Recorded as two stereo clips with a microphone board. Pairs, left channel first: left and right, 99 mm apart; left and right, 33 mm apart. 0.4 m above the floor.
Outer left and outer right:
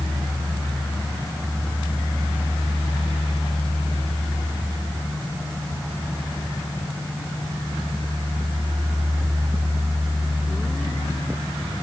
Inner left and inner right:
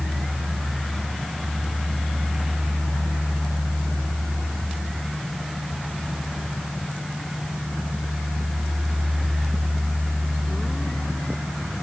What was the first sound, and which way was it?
Only background noise.